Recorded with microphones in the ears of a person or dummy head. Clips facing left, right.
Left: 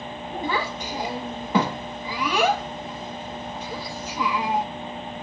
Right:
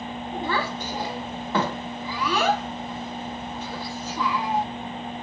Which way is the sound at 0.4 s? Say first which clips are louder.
Left 1 dB; 10° left (ahead or behind).